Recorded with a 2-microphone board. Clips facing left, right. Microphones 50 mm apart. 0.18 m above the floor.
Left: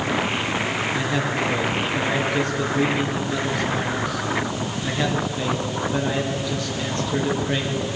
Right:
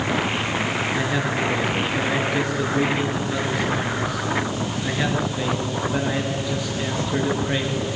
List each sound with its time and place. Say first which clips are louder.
0.9 s a man speaking: even; 10° right (ahead or behind), 3.5 m